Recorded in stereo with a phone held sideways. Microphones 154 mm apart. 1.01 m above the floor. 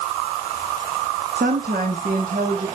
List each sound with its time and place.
1.4 s a woman speaking: 70° right (ahead or behind), 1.7 m; by 2.7 s 65° right (ahead or behind), 2.5 m